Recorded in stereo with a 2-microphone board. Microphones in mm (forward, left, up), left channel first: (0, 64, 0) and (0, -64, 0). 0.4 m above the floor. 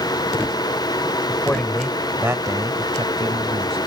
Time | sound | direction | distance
1.3 | a man speaking | 20° left (ahead or behind) | ?